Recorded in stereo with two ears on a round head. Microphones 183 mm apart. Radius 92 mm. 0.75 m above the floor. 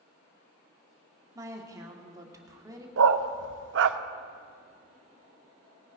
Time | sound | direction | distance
1.4 | a woman speaking | 15° right (ahead or behind) | 1.6 m
3.0 | a dog barking | 65° right (ahead or behind) | 0.5 m